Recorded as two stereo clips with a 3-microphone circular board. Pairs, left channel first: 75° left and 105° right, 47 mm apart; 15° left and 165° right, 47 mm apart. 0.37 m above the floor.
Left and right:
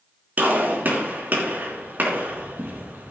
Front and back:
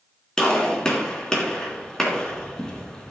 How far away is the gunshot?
About 3.5 m.